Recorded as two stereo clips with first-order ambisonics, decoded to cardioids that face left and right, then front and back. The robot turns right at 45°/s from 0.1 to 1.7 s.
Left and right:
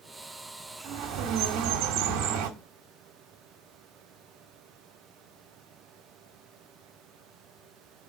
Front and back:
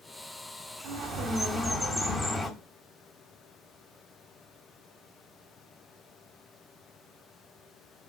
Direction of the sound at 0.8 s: 135° right.